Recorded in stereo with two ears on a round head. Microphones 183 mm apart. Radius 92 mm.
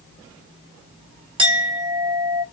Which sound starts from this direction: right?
A clink, at 1.4 s.